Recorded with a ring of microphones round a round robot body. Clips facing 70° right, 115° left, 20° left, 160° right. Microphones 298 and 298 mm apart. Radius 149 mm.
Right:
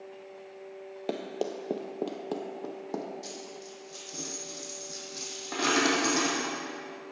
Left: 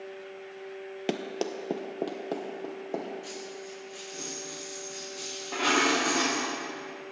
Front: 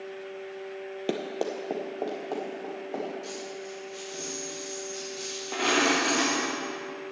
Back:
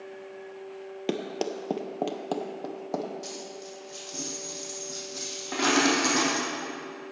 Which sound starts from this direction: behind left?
Running footsteps, at 1.1 s.